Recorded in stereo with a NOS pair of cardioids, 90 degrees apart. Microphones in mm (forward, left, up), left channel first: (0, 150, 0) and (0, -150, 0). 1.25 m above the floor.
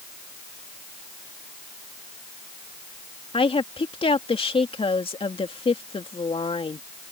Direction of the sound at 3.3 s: 20° left.